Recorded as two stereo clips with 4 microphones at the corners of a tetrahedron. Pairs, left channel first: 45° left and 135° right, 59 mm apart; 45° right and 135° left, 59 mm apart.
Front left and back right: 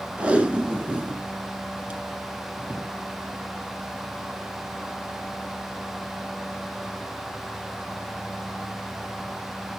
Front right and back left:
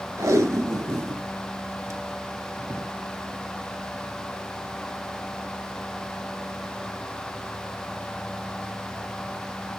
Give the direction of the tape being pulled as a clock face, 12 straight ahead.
7 o'clock.